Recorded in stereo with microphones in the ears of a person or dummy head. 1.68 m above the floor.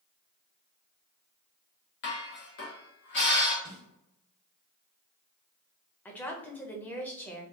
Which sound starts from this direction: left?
Dishes clattering, at 2.0 s.